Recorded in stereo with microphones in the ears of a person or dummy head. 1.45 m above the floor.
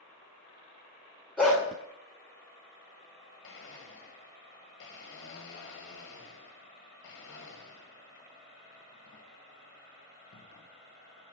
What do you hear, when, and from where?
1.4 s a dog barking: centre (ahead or behind), 2.5 m
3.4 s a blender: 70° left (ahead or behind), 1.2 m